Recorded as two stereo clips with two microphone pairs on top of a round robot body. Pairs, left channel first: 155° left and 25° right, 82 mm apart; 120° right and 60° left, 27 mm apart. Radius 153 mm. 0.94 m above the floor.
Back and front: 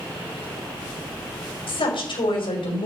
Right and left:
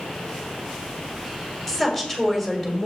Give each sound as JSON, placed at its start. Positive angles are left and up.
{"t": 1.7, "sound": "a woman speaking", "azimuth_deg": 170, "distance_m": 4.5}